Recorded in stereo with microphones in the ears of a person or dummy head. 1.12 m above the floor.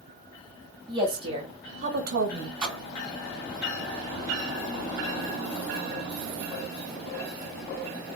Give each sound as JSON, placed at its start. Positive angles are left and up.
{"t": 0.9, "sound": "a woman speaking", "side_deg": -25, "distance_m": 1.4}
{"t": 2.6, "sound": "a splash", "side_deg": -5, "distance_m": 1.7}